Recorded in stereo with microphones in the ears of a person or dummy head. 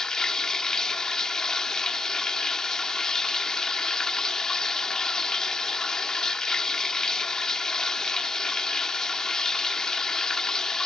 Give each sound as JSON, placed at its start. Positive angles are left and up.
{"t": 0.0, "sound": "running water", "side_deg": 5}